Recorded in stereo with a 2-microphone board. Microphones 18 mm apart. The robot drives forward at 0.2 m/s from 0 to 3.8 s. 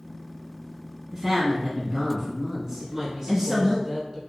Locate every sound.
1.1 s a woman speaking: 25° right (ahead or behind), 1.1 m
2.8 s a woman speaking: 5° right (ahead or behind), 1.6 m